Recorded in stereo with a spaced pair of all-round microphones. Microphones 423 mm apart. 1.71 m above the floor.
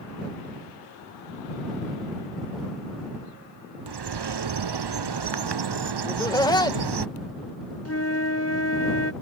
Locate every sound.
3.9 s a bird: 70° right (ahead or behind)
6.1 s laughter: 10° left (ahead or behind)
7.8 s a flute: 35° left (ahead or behind)